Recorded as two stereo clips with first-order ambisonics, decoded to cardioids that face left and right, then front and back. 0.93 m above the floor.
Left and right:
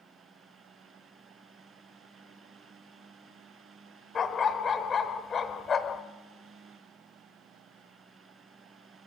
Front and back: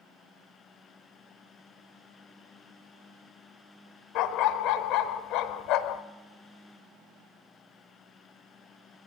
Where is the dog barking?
25° left, 1.1 m.